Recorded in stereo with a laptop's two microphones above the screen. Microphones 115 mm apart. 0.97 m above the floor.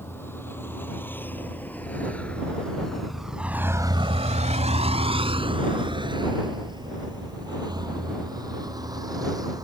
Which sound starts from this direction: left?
A vehicle, at 0.0 s.